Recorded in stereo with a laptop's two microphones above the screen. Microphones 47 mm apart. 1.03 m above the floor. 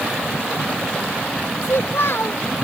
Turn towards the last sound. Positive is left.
turn(degrees=70)  # may be behind; listen again after turning